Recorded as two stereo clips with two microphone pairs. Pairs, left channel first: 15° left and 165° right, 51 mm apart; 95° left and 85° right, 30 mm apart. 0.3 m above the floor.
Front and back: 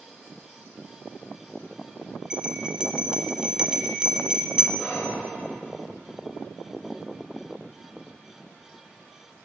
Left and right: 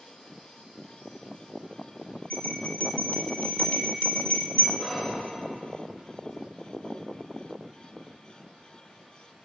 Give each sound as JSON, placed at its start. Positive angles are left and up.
{"t": 2.3, "sound": "a bell", "azimuth_deg": 120, "distance_m": 0.6}
{"t": 4.8, "sound": "whispering", "azimuth_deg": 30, "distance_m": 1.4}